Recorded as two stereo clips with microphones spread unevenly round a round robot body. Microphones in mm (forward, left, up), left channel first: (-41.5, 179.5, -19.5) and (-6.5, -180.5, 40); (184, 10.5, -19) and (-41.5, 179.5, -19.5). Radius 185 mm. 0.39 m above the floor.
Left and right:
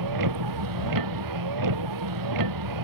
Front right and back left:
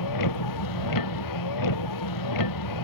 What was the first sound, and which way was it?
A vehicle, 45° right.